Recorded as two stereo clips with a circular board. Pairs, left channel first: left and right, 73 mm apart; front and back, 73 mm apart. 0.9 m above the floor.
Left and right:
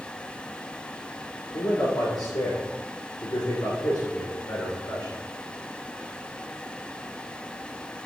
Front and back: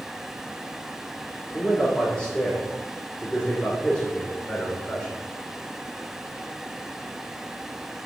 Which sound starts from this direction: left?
A man speaking, at 1.5 s.